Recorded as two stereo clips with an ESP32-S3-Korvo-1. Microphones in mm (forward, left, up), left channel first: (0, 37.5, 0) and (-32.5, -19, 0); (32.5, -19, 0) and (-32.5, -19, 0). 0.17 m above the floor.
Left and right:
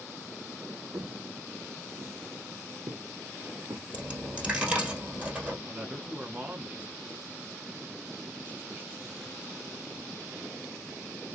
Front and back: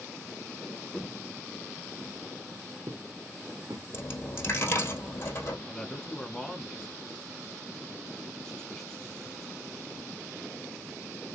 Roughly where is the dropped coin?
Ahead right.